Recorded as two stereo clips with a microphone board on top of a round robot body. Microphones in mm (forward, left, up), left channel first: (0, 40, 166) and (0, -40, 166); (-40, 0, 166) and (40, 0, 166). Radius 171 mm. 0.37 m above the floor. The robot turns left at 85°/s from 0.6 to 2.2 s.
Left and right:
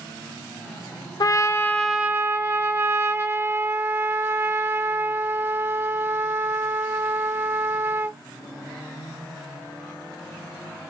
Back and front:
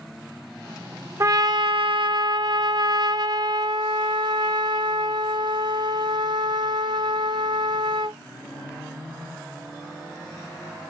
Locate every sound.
1.2 s a trumpet: 55° left, 0.5 m; by 8.2 s 30° right, 0.5 m